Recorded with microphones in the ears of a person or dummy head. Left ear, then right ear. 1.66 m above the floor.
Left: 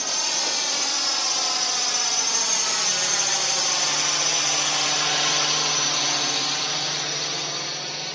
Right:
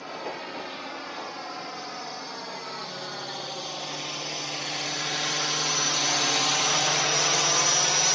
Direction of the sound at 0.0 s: 80° left.